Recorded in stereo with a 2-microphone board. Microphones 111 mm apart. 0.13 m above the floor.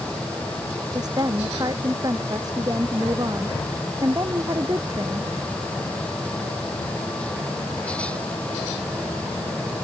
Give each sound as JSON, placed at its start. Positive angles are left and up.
{"t": 0.9, "sound": "a woman speaking", "side_deg": -35}